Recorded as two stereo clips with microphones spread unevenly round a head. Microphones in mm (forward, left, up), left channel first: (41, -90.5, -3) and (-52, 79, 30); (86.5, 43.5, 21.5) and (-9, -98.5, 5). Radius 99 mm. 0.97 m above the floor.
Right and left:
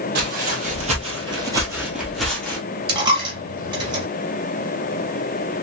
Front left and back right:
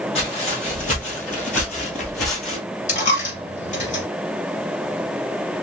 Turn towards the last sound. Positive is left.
turn(degrees=75)